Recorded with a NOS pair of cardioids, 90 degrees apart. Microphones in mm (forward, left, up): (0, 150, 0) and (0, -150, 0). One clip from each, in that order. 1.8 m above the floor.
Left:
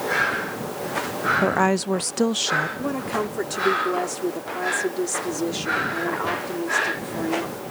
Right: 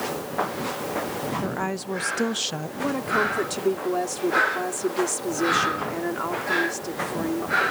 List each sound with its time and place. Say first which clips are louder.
1.4 s a woman speaking: left 8 dB; 50° left; by 2.7 s straight ahead
2.8 s a woman speaking: right 2 dB; 5° right